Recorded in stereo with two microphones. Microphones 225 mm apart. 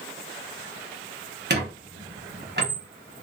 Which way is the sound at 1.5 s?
50° right (ahead or behind).